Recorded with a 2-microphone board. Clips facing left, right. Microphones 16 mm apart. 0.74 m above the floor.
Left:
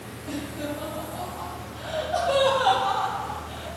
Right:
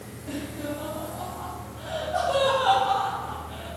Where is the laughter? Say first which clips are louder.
Left 1 dB; 5° left (ahead or behind), 1.0 m; by 3.7 s 60° left (ahead or behind), 2 m.